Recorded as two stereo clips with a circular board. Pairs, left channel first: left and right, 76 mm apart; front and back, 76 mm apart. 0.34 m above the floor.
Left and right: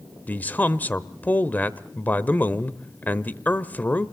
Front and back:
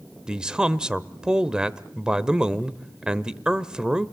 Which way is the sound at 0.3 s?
115° left.